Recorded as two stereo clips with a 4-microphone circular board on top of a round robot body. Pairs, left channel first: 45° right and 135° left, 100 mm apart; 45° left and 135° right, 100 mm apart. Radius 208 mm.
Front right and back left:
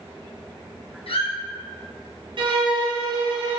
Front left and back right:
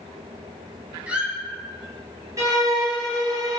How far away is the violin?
About 1.9 m.